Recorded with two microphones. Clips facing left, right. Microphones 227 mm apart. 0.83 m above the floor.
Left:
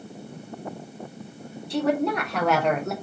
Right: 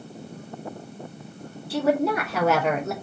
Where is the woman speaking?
5° right (ahead or behind), 1.3 m; by 2.9 s centre (ahead or behind), 0.9 m.